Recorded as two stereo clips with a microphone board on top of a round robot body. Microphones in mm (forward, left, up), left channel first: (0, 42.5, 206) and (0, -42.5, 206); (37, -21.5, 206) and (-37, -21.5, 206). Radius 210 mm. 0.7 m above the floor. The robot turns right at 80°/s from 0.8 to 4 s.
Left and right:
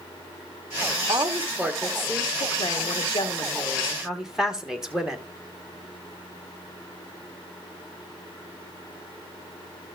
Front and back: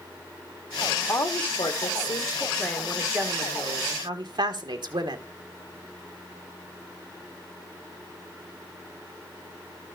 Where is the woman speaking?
45° right, 2 m; by 5.2 s 170° right, 2 m.